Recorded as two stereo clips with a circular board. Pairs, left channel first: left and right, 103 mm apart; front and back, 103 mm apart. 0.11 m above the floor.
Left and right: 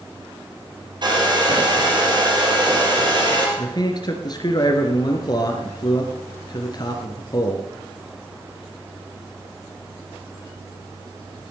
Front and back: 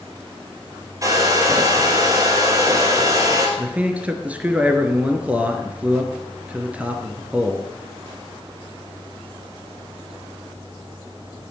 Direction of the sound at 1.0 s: 130° right.